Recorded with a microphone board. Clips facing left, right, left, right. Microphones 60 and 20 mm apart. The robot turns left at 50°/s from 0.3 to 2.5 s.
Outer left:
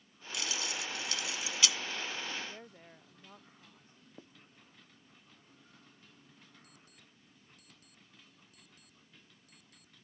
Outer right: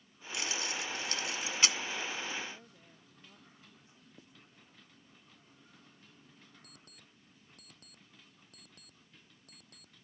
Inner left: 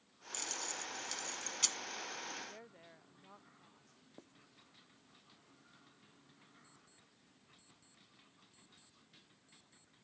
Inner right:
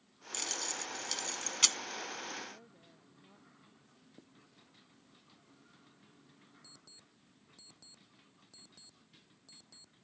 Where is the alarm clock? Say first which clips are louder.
Outer right 1 dB, inner right 8 dB; 60° right (ahead or behind).